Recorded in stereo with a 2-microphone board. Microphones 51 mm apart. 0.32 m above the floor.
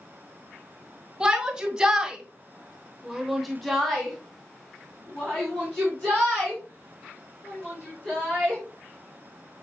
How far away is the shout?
About 2 m.